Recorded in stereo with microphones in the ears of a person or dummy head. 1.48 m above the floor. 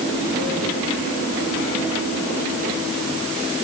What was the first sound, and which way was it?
Only background noise.